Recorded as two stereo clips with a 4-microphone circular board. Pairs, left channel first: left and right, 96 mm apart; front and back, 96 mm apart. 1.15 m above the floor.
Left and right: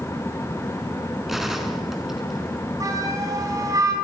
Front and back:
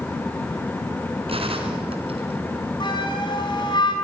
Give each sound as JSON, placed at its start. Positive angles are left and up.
{"t": 1.3, "sound": "a gunshot", "azimuth_deg": -175, "distance_m": 3.5}
{"t": 2.8, "sound": "a flute", "azimuth_deg": -35, "distance_m": 5.0}